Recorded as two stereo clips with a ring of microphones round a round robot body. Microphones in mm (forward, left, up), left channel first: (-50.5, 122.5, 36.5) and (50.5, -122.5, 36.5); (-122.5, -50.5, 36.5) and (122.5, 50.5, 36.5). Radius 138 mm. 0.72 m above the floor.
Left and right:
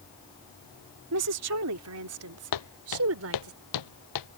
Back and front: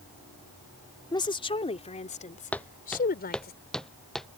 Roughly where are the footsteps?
Behind left.